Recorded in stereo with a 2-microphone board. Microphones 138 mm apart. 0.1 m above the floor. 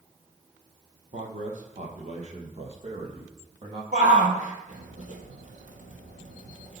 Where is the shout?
65° right (ahead or behind), 2.5 m.